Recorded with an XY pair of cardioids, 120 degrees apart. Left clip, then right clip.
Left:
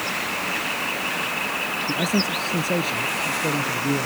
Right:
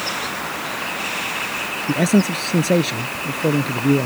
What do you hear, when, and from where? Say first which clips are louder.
1.9 s a man speaking: right 6 dB; 40° right